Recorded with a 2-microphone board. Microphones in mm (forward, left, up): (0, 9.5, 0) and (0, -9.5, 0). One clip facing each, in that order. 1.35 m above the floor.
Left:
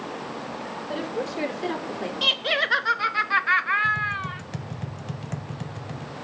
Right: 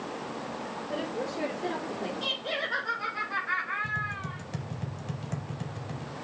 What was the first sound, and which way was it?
A woman speaking, 80° left.